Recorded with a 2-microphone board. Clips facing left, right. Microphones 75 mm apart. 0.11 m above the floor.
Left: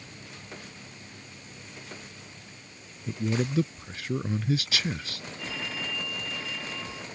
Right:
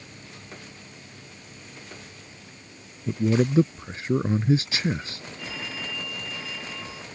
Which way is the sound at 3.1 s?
30° right (ahead or behind).